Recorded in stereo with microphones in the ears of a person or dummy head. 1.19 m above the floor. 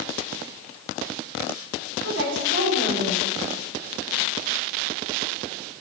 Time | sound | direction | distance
2.0 | a woman speaking | 65° right (ahead or behind) | 4 m